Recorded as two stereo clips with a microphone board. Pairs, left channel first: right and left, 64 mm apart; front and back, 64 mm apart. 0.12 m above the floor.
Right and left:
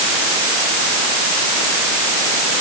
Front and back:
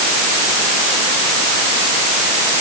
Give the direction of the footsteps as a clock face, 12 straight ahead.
No footsteps in this recording.